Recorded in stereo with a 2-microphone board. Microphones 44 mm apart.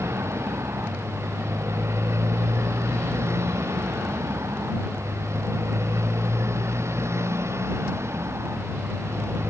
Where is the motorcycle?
80° right; by 9.5 s 75° right (ahead or behind).